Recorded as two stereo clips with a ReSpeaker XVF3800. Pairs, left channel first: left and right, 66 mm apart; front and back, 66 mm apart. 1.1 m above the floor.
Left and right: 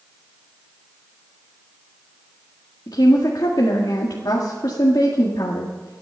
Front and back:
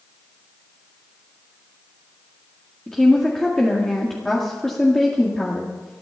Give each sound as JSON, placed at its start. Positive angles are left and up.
{"t": 2.9, "sound": "a woman speaking", "azimuth_deg": 85, "distance_m": 1.7}